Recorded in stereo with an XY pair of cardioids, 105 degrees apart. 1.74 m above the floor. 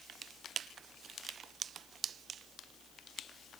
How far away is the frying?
I don't hear frying.